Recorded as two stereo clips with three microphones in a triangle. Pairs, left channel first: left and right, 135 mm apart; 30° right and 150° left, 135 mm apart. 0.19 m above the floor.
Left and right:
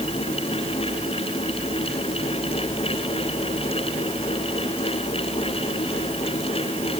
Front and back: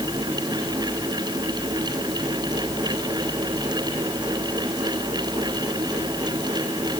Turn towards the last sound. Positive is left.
No sound to turn to.